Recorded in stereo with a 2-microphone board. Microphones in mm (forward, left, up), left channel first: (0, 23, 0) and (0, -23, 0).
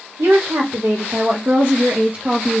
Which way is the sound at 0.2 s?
70° right (ahead or behind).